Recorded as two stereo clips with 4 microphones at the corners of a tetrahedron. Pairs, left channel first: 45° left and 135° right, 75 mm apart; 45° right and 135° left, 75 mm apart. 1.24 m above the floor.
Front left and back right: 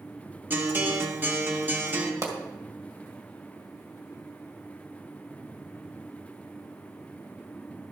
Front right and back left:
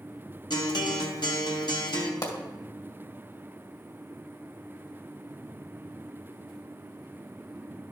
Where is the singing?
I don't hear singing.